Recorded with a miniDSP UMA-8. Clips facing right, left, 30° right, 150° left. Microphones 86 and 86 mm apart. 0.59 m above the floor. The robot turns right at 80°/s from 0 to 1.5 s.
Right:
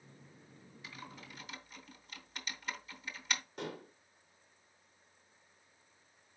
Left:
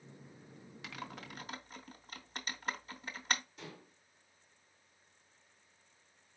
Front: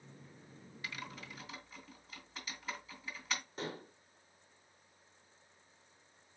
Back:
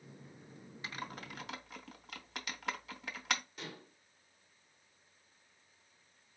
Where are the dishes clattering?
80° right, 0.6 m.